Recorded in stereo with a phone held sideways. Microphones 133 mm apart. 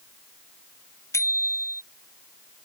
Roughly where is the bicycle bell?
Left.